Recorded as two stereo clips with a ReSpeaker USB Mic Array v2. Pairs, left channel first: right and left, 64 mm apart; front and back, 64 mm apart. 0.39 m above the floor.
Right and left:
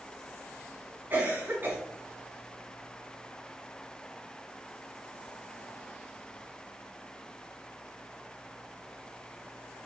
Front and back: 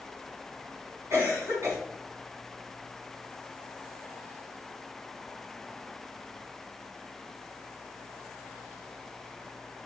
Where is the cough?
145° left, 4 m.